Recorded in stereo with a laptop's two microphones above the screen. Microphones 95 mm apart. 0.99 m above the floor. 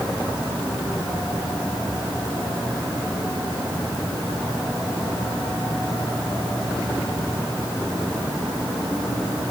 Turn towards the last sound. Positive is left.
No sound to turn to.